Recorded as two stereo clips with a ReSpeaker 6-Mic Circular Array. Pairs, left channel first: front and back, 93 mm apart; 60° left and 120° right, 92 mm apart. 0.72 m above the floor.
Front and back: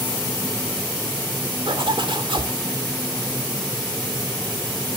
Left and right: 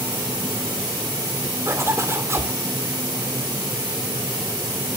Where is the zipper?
Straight behind, 2.5 m.